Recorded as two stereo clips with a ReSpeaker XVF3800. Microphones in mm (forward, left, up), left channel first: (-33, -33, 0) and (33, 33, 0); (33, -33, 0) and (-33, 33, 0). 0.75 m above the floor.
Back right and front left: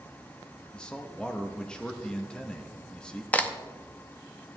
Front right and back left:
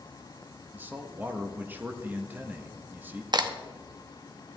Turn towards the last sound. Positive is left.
turn(degrees=155)